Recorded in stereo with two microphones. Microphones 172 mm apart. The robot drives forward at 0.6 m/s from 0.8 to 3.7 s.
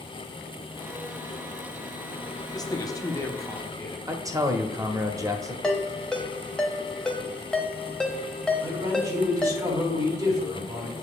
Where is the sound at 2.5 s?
20° left (ahead or behind), 0.7 m; by 4.0 s 15° left (ahead or behind), 1.0 m.